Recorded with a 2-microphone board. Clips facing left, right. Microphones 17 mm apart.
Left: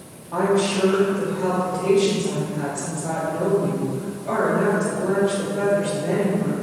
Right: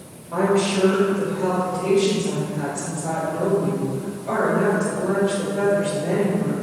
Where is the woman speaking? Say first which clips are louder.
Even; 55° right (ahead or behind), 1.8 m.